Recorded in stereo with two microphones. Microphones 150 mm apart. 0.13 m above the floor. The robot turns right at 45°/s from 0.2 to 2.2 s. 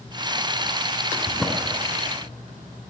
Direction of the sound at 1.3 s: 5° left (ahead or behind).